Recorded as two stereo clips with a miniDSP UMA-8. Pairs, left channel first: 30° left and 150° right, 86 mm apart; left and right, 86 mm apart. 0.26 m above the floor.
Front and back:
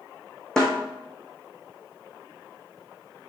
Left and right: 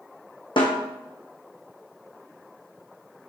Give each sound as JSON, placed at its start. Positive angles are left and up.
{"t": 0.6, "sound": "a snare drum", "azimuth_deg": 110, "distance_m": 2.5}